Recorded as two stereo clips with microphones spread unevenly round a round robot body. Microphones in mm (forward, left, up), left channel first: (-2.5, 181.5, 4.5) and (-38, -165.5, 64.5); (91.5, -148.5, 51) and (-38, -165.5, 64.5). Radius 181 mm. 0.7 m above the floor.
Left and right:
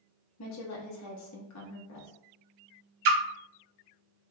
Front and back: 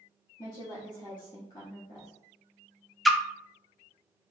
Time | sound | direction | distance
0.4 | a woman speaking | 60° left | 1.0 m
3.0 | a splash | 80° right | 0.6 m